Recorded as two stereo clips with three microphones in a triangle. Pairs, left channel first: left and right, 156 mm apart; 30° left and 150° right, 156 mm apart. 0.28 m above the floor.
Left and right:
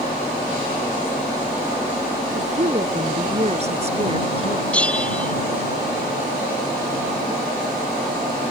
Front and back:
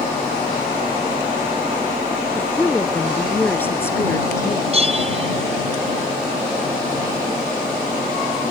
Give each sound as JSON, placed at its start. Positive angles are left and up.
{"t": 2.4, "sound": "a woman speaking", "azimuth_deg": -55}
{"t": 4.7, "sound": "a bell", "azimuth_deg": 170}